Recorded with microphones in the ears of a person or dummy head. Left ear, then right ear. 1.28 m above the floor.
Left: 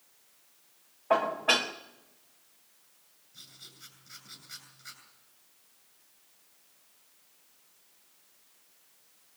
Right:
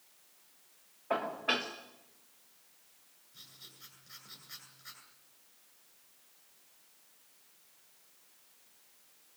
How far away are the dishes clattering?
About 0.6 m.